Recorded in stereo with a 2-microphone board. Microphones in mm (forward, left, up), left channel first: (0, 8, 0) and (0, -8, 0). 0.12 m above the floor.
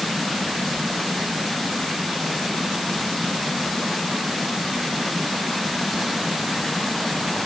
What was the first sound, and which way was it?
Only background noise.